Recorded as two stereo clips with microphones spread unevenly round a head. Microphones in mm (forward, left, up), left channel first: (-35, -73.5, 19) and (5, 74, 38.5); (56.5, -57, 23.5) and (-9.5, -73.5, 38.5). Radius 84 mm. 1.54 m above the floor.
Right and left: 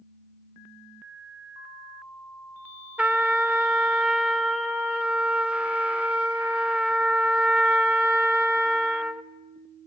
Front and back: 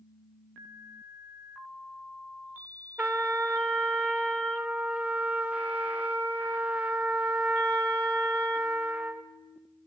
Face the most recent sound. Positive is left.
turn(degrees=145)